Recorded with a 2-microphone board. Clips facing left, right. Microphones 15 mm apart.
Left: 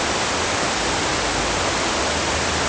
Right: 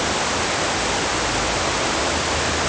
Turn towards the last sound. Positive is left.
No sound to turn to.